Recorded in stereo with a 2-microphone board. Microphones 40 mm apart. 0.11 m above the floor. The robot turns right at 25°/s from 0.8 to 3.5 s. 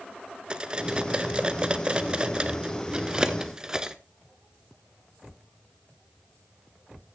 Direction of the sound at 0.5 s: 20° right (ahead or behind).